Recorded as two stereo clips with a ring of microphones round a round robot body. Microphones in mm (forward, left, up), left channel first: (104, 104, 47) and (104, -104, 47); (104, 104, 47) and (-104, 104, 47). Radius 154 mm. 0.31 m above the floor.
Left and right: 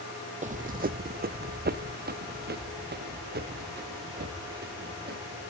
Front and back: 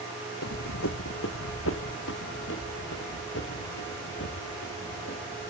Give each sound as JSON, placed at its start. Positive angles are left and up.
{"t": 0.4, "sound": "running footsteps", "azimuth_deg": -35, "distance_m": 0.6}